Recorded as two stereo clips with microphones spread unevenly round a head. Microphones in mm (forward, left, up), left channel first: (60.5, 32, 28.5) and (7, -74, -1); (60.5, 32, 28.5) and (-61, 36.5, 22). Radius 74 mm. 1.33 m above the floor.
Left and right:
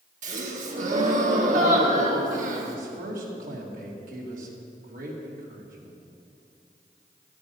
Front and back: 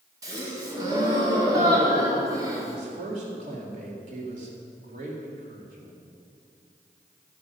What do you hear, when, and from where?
0.2 s a gasp: 115° right, 1.8 m
2.7 s a man speaking: 145° right, 2.5 m